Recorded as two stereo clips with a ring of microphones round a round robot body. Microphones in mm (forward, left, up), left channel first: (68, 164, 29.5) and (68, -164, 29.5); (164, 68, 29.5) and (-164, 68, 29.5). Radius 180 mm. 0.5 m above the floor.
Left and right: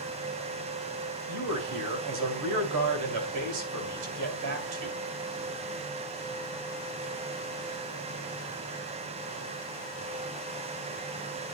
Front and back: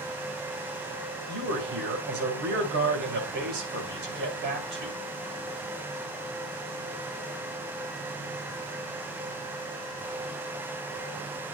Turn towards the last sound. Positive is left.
turn(degrees=-120)